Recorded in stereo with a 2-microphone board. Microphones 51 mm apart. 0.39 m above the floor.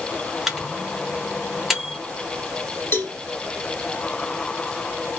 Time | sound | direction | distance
0.5 | a microwave | 5° right (ahead or behind) | 0.9 m
2.9 | a cowbell | 45° left (ahead or behind) | 1.0 m